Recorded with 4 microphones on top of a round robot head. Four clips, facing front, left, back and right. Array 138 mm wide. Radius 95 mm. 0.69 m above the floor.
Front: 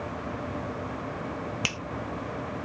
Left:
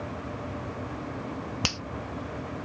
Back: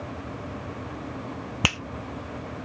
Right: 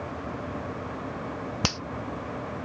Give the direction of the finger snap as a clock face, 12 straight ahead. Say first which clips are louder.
Right 6 dB, back 6 dB; 5 o'clock.